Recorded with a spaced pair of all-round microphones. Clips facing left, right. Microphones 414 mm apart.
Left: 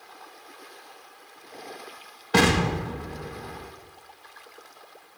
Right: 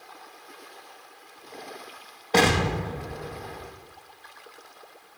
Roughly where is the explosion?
Left.